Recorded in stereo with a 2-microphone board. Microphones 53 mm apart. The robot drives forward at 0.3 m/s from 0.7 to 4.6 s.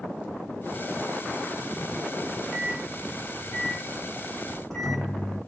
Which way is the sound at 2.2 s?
15° left (ahead or behind).